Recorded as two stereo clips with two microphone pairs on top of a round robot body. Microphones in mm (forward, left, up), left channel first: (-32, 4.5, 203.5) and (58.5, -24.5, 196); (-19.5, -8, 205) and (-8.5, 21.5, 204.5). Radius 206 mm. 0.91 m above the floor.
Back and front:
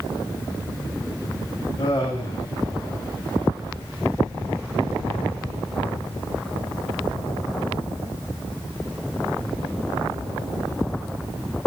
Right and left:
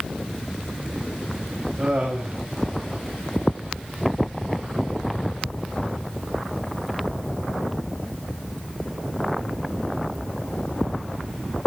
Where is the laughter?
110° left, 7 m.